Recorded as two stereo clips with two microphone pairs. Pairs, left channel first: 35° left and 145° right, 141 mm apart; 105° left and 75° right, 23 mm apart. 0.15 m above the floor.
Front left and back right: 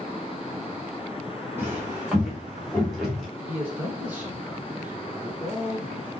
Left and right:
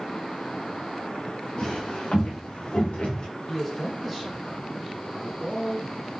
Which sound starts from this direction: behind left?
Footsteps, at 1.6 s.